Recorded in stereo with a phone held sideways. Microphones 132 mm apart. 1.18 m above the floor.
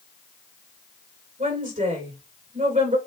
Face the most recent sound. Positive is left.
turn(degrees=-90)